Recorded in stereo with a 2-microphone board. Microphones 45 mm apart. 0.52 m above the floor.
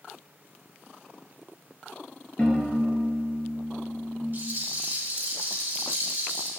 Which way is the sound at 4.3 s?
45° right (ahead or behind).